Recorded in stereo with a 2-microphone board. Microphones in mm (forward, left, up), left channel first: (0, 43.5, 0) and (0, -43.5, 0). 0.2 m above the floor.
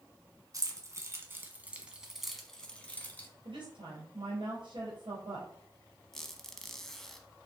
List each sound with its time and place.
0.5 s keys jangling: 40° right (ahead or behind), 1.6 m; by 3.3 s 25° left (ahead or behind), 1.5 m
3.5 s a woman speaking: 65° right (ahead or behind), 3.5 m
6.1 s a squeak: 5° left (ahead or behind), 0.9 m